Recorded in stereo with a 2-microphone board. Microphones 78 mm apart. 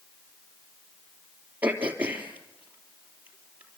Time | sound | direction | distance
1.6 | throat clearing | 20° right (ahead or behind) | 3 m